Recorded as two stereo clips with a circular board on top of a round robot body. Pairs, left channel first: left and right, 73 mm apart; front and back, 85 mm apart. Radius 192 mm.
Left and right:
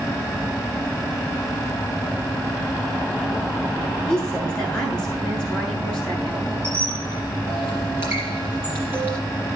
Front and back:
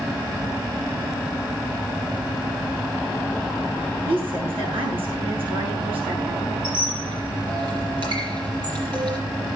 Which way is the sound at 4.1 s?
170° left.